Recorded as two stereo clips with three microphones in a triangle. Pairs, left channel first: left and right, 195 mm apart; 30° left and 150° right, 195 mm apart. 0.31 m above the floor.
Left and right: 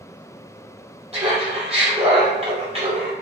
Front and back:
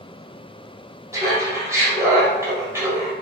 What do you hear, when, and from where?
1.1 s laughter: 90° right, 1.6 m